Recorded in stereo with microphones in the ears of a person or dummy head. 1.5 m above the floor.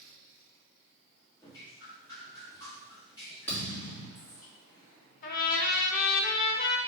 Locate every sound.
1.4 s dripping: 20° left (ahead or behind), 1.6 m
3.5 s a thud: 15° left (ahead or behind), 1.9 m
5.2 s a trumpet: 50° left (ahead or behind), 0.8 m